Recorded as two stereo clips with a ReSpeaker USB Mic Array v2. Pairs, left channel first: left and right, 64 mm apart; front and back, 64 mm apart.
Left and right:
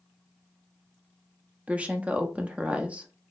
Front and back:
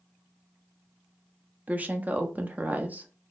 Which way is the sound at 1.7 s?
140° right.